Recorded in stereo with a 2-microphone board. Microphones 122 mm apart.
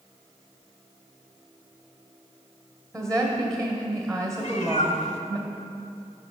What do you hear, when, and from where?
2.9 s a woman speaking: 5° left (ahead or behind), 1.3 m
4.4 s a cat meowing: 65° left (ahead or behind), 0.7 m